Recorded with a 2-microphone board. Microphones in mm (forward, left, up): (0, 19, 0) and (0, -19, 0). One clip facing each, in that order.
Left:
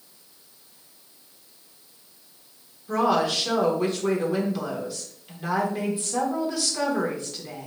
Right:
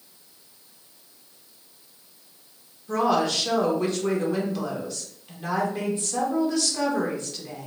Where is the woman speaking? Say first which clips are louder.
Even; 5° left (ahead or behind), 1.4 m.